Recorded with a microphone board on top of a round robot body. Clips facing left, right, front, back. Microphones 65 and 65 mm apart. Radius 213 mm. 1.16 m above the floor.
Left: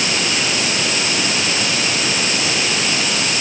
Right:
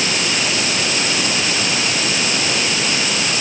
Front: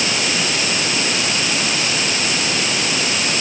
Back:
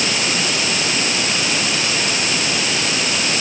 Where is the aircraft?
I don't hear an aircraft.